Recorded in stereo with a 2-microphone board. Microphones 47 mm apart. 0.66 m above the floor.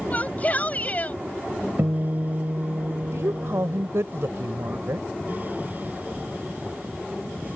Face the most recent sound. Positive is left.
turn(degrees=-75)  # may be behind; listen again after turning